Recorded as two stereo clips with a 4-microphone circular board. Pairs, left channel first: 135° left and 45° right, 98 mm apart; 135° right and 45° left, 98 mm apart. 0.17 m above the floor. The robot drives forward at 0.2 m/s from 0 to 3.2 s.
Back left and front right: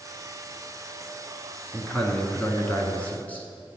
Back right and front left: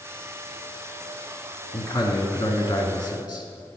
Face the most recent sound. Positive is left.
turn(degrees=-155)